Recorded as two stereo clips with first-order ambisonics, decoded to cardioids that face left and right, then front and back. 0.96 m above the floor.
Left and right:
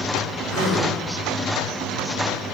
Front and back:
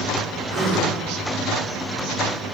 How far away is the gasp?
About 3 m.